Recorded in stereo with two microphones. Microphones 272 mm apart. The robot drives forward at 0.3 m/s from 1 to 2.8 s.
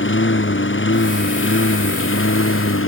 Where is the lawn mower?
45° left (ahead or behind); by 2.9 s 50° left (ahead or behind).